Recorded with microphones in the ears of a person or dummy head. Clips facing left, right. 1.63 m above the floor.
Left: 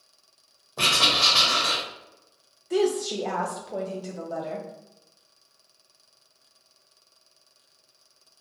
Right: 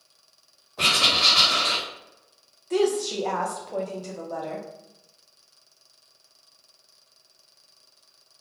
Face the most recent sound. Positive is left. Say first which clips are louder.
# right 1 dB
turn(degrees=5)  # may be behind; listen again after turning